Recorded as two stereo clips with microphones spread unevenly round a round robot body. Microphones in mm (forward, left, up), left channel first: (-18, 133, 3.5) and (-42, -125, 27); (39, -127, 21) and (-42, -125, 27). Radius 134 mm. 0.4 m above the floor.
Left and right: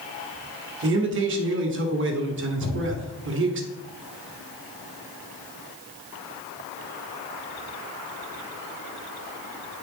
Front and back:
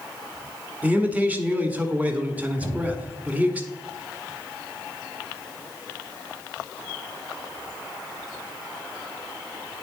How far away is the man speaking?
About 1.4 m.